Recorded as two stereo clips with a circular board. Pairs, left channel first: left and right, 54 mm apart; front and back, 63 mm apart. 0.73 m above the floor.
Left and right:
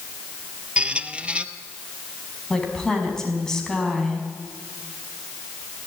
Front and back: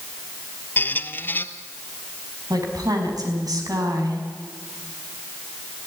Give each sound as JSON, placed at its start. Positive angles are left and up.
{"t": 0.8, "sound": "a squeak", "azimuth_deg": -35, "distance_m": 0.9}
{"t": 2.5, "sound": "a woman speaking", "azimuth_deg": 165, "distance_m": 5.0}